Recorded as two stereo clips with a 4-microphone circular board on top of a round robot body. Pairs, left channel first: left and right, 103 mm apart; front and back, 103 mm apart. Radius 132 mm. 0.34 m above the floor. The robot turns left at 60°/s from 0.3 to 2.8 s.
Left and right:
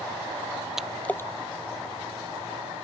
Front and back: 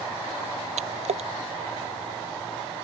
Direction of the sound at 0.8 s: 175° right.